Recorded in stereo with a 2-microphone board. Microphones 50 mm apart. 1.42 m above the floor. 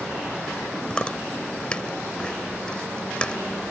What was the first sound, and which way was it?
Chewing, 20° left (ahead or behind).